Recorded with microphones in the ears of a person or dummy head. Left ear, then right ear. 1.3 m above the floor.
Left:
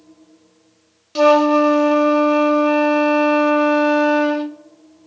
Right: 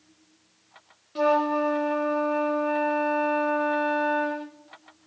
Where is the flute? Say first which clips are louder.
Left 10 dB; 85° left, 0.9 m.